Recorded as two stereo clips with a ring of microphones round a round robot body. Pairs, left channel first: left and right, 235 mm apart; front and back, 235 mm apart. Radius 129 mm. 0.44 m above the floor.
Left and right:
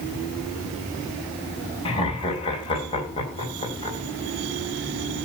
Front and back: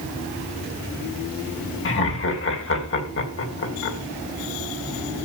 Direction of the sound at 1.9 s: 20° left.